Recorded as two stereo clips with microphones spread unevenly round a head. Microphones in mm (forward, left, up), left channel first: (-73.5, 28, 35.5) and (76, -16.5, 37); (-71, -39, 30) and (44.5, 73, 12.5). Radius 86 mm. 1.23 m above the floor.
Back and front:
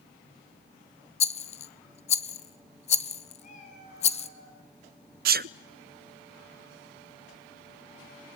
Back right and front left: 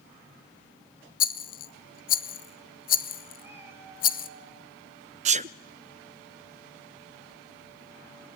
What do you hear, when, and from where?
1.2 s a rattle: 160° right, 0.6 m
3.4 s a cat meowing: 120° left, 7 m
5.2 s a sneeze: straight ahead, 0.5 m